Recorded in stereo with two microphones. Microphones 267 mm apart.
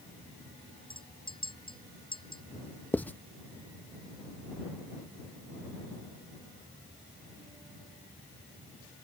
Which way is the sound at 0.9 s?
20° left (ahead or behind).